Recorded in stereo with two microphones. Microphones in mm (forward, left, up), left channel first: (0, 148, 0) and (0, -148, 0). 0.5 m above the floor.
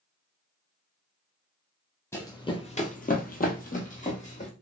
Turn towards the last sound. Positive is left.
turn(degrees=25)  # may be behind; listen again after turning